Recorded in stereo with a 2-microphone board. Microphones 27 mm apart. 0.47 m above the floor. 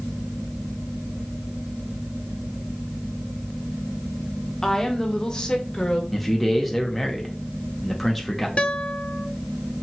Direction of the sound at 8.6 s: 45° left (ahead or behind).